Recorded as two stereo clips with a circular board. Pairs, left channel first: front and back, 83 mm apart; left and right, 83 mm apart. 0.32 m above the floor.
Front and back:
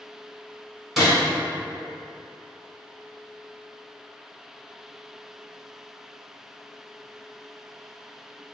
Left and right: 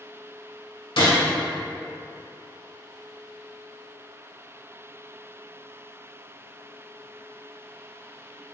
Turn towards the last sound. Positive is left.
turn(degrees=90)